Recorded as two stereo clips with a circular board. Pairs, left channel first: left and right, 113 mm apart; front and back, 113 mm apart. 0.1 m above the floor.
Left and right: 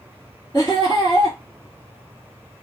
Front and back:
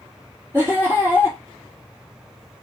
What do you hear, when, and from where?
0.5 s laughter: 120° left, 2.5 m